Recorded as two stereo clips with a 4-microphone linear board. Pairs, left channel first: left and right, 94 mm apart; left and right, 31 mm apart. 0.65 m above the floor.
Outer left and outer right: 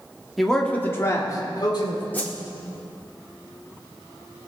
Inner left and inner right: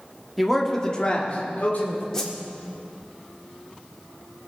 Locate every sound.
0.4 s a man speaking: centre (ahead or behind), 1.4 m; by 2.0 s 55° left (ahead or behind), 2.5 m
2.1 s a whoosh: 15° left (ahead or behind), 1.5 m